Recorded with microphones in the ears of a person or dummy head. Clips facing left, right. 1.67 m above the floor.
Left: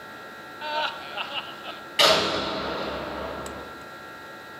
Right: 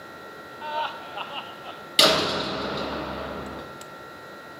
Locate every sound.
0.6 s laughter: 25° left (ahead or behind), 0.7 m
2.0 s a door slam: 55° right (ahead or behind), 1.8 m